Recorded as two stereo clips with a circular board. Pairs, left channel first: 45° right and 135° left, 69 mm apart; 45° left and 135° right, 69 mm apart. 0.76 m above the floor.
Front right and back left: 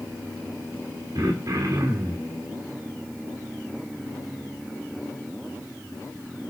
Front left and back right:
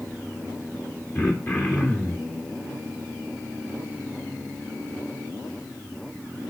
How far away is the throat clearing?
About 1.6 m.